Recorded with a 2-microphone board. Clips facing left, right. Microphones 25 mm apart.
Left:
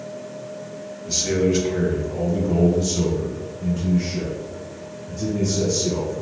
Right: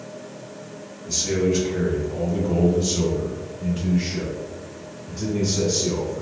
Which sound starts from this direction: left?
A man speaking, at 1.1 s.